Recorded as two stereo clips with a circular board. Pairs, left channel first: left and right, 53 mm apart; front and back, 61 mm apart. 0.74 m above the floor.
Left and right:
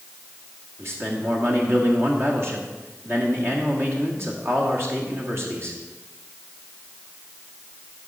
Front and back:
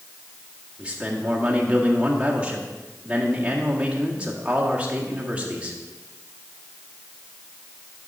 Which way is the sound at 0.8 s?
110° right.